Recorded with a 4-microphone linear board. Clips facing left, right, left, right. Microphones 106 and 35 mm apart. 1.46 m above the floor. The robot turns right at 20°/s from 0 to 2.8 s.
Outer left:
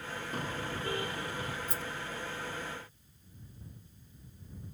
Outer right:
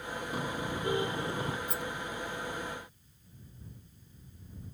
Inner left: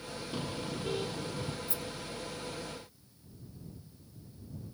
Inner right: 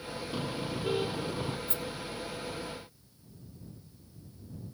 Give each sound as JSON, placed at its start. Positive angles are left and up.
{"t": 0.3, "sound": "a car horn", "side_deg": -5}
{"t": 1.7, "sound": "a rattle", "side_deg": -60}